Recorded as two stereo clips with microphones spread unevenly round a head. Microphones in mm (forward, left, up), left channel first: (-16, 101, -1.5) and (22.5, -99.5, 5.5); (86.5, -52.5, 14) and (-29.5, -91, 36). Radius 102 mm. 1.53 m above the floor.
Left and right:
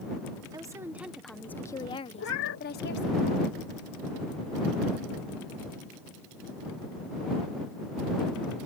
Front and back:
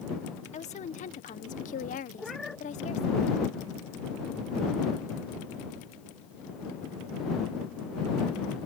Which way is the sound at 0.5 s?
5° right.